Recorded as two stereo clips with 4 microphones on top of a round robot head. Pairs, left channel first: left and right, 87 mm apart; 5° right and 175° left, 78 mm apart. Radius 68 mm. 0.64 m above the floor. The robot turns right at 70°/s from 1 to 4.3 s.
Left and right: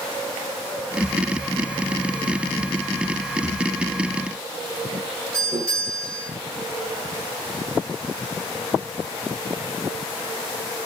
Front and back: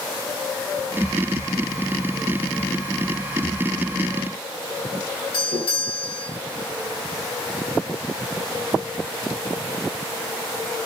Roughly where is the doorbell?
Ahead right.